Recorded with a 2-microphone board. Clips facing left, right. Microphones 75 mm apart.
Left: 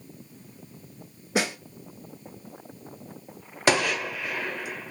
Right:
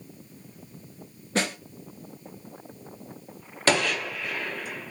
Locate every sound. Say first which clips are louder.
1.4 s a snare drum: left 1 dB; 10° left (ahead or behind), 0.7 m
3.7 s a gunshot: left 1 dB; 15° left (ahead or behind), 1.0 m